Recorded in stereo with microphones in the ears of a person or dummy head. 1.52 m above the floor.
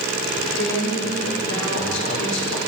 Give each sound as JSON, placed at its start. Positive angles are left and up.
{"t": 0.4, "sound": "a man speaking", "side_deg": 75, "distance_m": 5.5}